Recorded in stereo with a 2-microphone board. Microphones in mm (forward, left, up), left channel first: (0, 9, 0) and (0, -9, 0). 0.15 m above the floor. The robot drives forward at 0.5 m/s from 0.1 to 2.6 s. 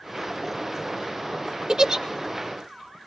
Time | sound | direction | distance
1.7 | a giggle | 35° right (ahead or behind) | 0.5 m